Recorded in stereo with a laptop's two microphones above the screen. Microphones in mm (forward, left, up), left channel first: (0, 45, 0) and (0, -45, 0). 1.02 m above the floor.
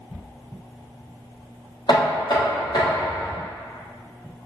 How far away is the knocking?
About 0.9 m.